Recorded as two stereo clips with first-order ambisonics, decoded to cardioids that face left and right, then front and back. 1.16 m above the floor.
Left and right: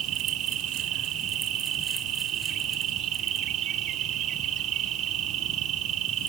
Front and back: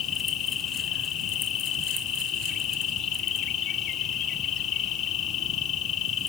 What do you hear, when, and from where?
0.0 s an insect: 50° right, 1.4 m